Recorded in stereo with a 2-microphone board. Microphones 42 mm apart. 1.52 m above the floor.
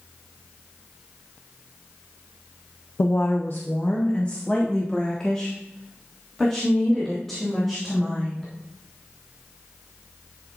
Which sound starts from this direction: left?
A woman speaking, at 3.0 s.